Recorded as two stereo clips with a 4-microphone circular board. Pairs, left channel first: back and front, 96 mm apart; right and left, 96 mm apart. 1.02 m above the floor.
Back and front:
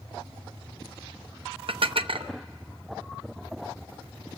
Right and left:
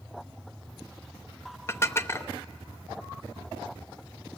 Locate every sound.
1.7 s dishes clattering: 25° right, 0.6 m